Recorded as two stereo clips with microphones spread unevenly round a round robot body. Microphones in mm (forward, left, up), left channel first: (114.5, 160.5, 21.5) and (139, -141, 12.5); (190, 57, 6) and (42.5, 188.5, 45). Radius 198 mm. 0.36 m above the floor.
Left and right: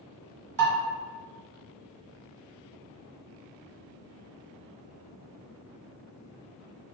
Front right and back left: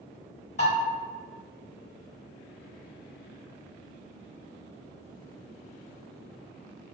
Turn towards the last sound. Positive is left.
turn(degrees=-95)